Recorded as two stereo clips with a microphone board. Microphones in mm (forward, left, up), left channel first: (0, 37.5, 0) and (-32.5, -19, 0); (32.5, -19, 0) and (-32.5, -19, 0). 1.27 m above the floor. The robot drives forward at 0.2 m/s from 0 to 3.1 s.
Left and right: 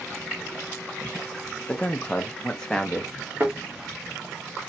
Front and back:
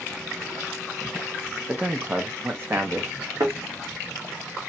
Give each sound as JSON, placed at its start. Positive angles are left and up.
{"t": 1.7, "sound": "a man speaking", "azimuth_deg": 120, "distance_m": 0.6}
{"t": 3.4, "sound": "a thud", "azimuth_deg": -175, "distance_m": 1.2}